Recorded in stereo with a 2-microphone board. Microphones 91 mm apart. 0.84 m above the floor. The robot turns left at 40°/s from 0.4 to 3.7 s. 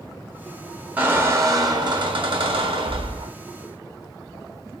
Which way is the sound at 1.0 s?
15° right.